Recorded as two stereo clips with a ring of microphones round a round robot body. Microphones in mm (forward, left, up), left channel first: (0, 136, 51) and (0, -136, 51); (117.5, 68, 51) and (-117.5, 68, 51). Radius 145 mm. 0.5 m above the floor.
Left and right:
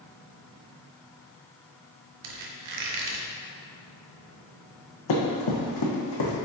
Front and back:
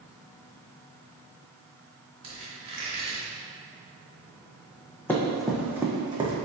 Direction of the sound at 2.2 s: 110° right.